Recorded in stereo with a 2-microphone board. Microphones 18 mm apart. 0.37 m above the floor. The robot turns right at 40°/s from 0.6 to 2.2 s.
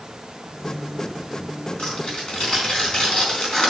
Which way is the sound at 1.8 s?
70° left (ahead or behind).